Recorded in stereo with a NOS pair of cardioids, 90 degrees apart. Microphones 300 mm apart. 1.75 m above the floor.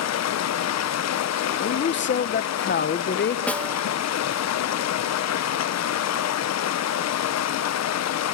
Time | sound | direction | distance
0.0 | running water | 60° left | 1.4 m
1.5 | a man speaking | 40° left | 1.6 m
3.5 | a snare drum | 5° left | 2.5 m